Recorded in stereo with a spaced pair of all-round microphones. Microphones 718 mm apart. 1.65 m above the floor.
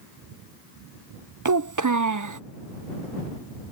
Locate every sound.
1.4 s a child speaking: 30° right (ahead or behind)